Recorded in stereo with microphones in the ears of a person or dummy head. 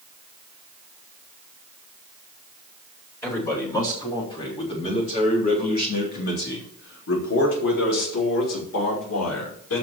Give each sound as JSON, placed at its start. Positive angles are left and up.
{"t": 3.2, "sound": "a man speaking", "side_deg": 15, "distance_m": 4.0}